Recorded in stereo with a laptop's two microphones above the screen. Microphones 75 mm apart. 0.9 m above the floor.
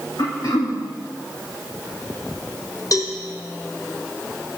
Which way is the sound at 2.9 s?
50° left (ahead or behind).